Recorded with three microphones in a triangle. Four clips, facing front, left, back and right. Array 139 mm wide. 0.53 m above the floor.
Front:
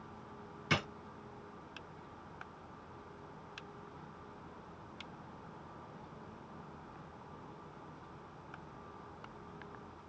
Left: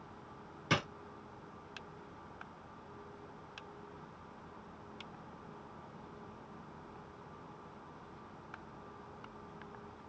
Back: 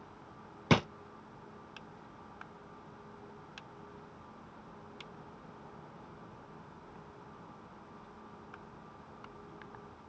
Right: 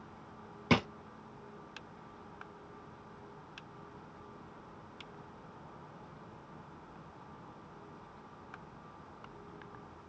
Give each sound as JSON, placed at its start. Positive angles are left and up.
{"t": 0.7, "sound": "a drawer", "azimuth_deg": -160, "distance_m": 0.6}